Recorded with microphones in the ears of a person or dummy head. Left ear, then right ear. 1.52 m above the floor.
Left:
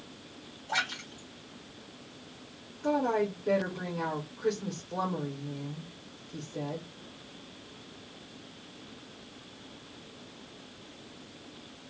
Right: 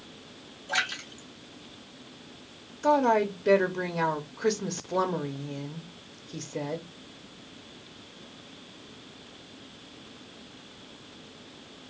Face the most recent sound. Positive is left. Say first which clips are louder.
# right 6 dB
turn(degrees=-75)  # may be behind; listen again after turning